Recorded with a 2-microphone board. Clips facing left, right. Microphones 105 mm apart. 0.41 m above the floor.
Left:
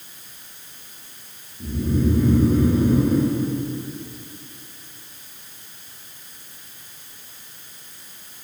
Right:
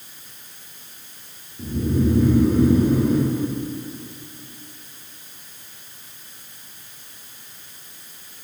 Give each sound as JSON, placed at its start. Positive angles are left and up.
{"t": 1.6, "sound": "snoring", "side_deg": -75, "distance_m": 3.0}